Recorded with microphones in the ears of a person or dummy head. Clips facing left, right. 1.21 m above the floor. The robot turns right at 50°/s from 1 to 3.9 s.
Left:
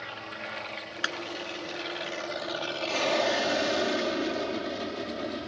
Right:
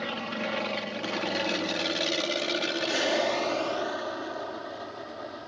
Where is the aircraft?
50° right (ahead or behind); by 5.5 s 35° left (ahead or behind).